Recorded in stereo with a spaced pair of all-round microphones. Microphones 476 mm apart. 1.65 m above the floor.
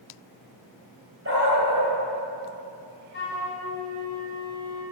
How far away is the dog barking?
About 3 m.